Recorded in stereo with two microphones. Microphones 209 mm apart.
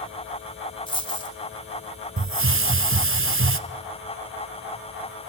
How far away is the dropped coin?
About 1.5 m.